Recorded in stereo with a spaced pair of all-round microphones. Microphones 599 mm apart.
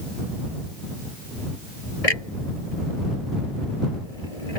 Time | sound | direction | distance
2.0 | a clunk | 75° left (ahead or behind) | ?